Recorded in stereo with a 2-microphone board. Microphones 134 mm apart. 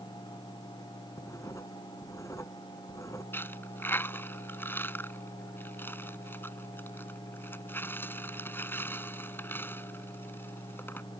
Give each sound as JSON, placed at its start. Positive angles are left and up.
{"t": 1.2, "sound": "writing", "side_deg": 25}
{"t": 3.3, "sound": "a dropped coin", "side_deg": 15}